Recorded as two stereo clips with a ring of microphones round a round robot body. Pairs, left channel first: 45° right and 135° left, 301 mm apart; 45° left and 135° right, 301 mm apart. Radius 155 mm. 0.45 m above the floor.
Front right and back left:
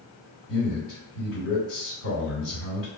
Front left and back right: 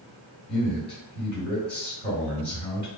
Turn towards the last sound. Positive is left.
turn(degrees=-20)